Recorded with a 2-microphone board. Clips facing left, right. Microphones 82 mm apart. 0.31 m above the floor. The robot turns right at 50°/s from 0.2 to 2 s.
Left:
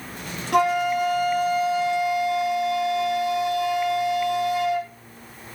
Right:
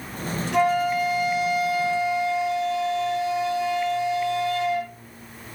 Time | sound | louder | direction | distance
0.5 | a flute | left 1 dB | 90° left | 3 m